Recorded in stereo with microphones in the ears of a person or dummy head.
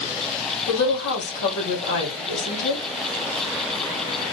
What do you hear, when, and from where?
0.7 s a woman speaking: 70° left (ahead or behind), 2 m